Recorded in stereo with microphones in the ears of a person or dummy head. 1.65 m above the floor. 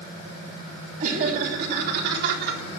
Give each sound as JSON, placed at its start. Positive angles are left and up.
{"t": 1.0, "sound": "laughter", "side_deg": -55, "distance_m": 3.5}